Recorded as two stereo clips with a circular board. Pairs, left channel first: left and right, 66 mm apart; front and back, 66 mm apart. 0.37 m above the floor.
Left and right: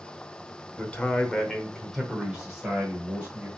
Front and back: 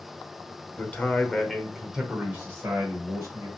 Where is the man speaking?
40° left, 1.0 m; by 3.5 s 150° right, 1.3 m.